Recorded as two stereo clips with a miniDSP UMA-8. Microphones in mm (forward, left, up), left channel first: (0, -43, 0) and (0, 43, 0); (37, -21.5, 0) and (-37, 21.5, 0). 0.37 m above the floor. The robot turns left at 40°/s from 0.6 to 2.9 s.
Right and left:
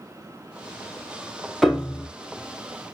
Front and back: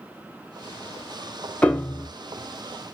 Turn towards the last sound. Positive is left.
turn(degrees=-50)